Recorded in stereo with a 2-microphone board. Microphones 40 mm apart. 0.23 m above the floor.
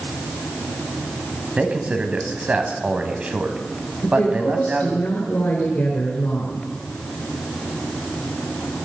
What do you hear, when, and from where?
1.6 s a man speaking: 35° right (ahead or behind), 1.6 m
4.0 s a woman speaking: 55° left (ahead or behind), 3 m